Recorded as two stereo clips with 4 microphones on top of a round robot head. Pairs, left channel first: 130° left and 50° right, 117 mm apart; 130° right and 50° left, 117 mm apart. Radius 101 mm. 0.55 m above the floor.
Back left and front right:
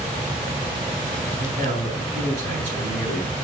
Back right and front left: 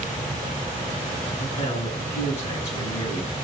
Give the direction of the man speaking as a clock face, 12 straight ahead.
3 o'clock.